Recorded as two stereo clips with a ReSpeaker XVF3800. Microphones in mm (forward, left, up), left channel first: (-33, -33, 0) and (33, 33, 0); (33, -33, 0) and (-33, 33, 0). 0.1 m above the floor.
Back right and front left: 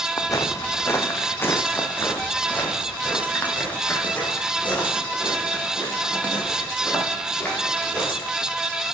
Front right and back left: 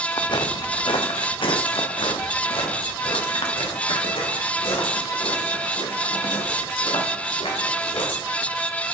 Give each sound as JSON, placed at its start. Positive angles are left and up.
{"t": 0.2, "sound": "footsteps", "azimuth_deg": -85, "distance_m": 0.9}